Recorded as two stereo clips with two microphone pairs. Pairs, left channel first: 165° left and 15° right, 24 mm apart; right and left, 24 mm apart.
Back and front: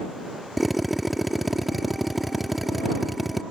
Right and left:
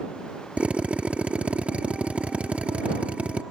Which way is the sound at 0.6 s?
70° left.